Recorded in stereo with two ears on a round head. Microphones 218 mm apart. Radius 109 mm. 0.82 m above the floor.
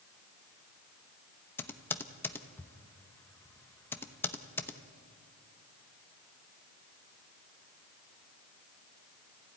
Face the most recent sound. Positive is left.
turn(degrees=10)  # may be behind; listen again after turning